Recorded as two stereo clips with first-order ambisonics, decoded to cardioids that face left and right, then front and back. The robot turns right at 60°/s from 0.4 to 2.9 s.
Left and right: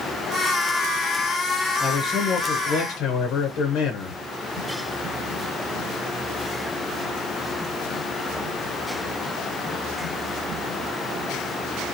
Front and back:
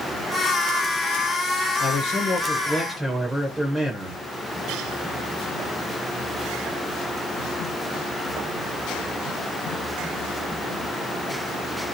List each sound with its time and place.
1.8 s a man speaking: 20° left, 0.5 m; by 4.2 s 90° left, 0.5 m